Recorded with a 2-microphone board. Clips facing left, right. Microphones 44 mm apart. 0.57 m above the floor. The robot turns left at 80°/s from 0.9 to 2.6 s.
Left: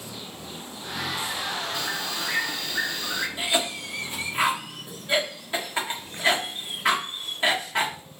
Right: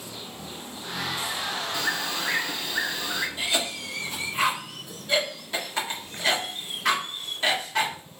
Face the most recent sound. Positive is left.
turn(degrees=20)  # may be behind; listen again after turning